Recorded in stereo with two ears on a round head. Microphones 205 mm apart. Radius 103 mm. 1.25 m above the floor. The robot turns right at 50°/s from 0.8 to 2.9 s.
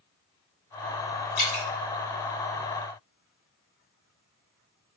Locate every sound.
1.4 s dripping: 65° left (ahead or behind), 1.5 m; by 1.6 s 60° left (ahead or behind), 1.5 m